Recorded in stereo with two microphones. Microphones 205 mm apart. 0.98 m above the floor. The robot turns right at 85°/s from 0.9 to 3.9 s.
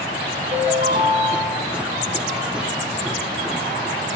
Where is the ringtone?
45° right, 5.5 m; by 1.7 s 20° left, 5.5 m.